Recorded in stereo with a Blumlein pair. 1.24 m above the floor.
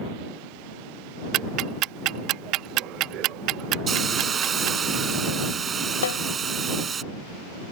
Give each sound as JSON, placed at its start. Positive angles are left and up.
{"t": 1.3, "sound": "ticking", "azimuth_deg": -35}
{"t": 3.9, "sound": "a hiss", "azimuth_deg": -20}
{"t": 6.0, "sound": "a snare drum", "azimuth_deg": 65}